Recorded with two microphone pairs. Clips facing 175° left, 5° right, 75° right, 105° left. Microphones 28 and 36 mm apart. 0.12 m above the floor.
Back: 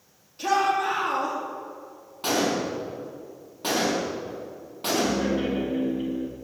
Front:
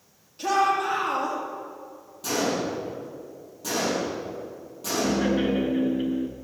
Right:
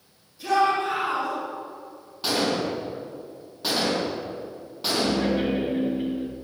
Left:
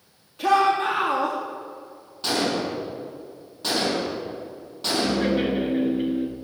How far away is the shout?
About 4.5 m.